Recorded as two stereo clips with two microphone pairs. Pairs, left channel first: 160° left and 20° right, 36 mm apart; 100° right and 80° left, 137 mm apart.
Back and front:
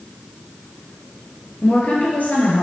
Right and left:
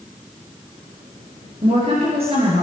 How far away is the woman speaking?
About 4 m.